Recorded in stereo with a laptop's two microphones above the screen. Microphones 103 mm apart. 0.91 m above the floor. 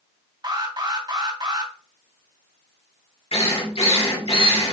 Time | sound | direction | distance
0.4 | an alarm | 45° right (ahead or behind) | 2.5 m
3.3 | a drill | 80° left | 3 m